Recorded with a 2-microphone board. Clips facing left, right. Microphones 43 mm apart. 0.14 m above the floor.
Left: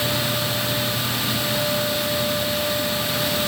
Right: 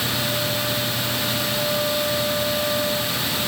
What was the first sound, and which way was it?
Only background noise.